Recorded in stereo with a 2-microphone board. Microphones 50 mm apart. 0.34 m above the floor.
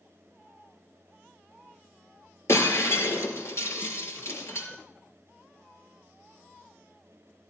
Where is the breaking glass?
65° left (ahead or behind), 4.5 m.